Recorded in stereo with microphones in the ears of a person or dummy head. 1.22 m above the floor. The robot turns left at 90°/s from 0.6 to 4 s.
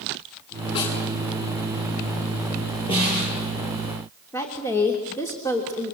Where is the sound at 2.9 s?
155° left, 9 m; by 3.3 s 115° left, 9 m.